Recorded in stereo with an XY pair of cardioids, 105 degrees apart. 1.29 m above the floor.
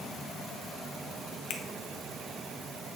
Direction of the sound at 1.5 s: 55° left.